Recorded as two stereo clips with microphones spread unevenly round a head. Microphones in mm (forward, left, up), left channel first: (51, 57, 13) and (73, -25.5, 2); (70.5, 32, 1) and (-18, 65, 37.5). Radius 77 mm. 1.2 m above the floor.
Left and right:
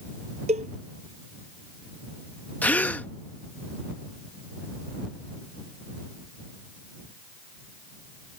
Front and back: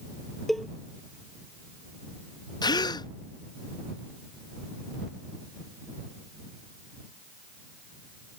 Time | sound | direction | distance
0.5 | a cowbell | 115° right | ?
2.6 | a gasp | 35° left | ?